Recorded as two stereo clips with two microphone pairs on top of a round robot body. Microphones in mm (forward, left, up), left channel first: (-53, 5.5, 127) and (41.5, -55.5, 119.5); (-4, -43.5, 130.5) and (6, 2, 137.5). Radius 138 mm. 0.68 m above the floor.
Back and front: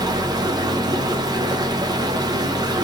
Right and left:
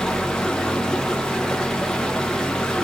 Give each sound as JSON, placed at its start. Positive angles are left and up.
{"t": 0.0, "sound": "running water", "azimuth_deg": -45, "distance_m": 0.9}